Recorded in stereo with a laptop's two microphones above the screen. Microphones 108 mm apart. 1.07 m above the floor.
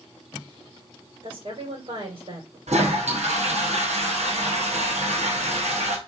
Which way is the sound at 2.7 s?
85° right.